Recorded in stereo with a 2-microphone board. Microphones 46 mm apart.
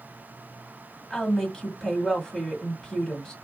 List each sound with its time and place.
1.1 s a woman speaking: 15° left (ahead or behind), 1.4 m